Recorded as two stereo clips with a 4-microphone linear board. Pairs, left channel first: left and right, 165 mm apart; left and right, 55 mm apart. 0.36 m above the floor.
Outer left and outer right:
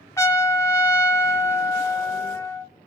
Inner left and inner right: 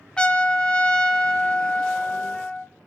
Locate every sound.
0.2 s a trumpet: 20° left (ahead or behind), 0.6 m